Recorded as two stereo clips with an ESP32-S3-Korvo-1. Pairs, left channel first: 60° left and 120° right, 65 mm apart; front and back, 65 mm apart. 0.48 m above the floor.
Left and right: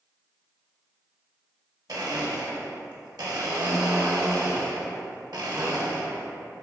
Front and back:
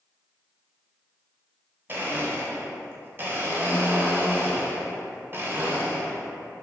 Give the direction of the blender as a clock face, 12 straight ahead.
4 o'clock.